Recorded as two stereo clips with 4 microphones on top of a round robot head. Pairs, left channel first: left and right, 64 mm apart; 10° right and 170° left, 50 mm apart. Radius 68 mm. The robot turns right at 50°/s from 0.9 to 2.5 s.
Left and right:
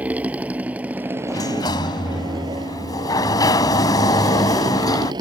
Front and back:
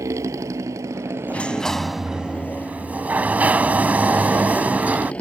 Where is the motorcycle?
160° right; by 5.2 s 80° right.